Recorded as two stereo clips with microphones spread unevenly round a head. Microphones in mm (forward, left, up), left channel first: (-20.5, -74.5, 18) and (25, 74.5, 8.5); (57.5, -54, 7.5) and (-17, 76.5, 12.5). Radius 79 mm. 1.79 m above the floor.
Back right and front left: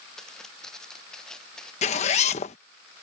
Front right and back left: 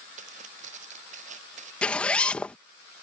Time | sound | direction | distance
0.2 | footsteps | 165° left | ?
1.8 | a zipper | 145° right | ?